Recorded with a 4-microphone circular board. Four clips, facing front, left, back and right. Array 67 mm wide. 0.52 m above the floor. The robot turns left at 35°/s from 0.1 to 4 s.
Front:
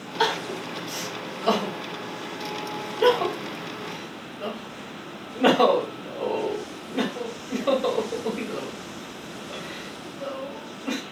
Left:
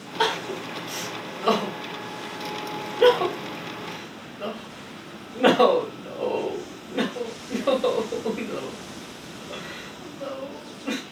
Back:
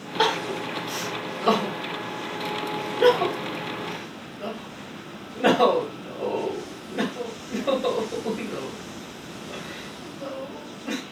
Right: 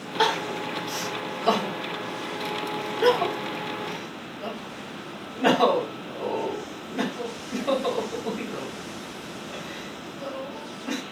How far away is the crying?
About 1.8 m.